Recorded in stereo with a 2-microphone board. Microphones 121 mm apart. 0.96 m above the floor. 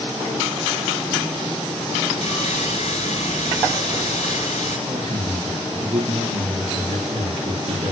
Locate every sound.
2.2 s sawing: 85° left, 6.5 m
4.9 s a man speaking: 60° right (ahead or behind), 6 m